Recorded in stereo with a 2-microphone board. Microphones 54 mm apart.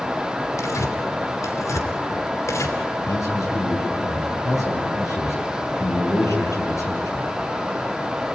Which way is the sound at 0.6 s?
60° left (ahead or behind).